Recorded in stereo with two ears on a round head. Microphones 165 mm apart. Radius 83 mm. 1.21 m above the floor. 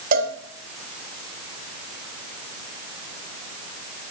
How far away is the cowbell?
About 1.6 m.